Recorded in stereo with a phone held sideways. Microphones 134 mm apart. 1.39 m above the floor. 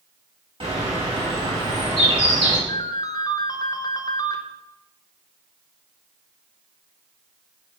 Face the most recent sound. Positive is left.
turn(degrees=30)  # may be behind; listen again after turning